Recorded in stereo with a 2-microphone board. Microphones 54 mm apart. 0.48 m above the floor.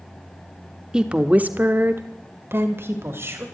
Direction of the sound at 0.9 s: 15° right (ahead or behind).